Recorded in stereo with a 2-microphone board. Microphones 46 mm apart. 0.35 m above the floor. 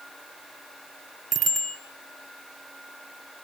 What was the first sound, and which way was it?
A bicycle bell, centre (ahead or behind).